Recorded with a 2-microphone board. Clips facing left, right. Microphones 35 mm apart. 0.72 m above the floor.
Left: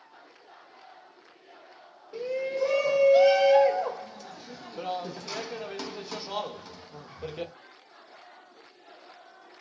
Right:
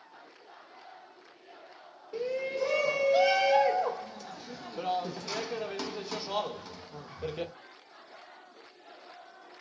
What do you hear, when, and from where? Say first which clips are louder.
2.1 s a shout: left 2 dB; 5° right (ahead or behind), 0.7 m